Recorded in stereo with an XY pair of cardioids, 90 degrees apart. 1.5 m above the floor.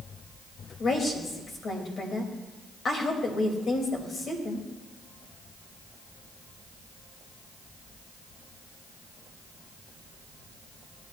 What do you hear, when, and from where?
0.8 s a woman speaking: 55° left, 3 m